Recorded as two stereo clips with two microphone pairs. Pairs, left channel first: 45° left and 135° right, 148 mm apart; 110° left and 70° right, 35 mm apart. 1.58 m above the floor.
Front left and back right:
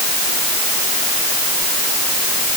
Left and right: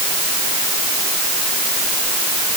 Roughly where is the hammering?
No hammering in this recording.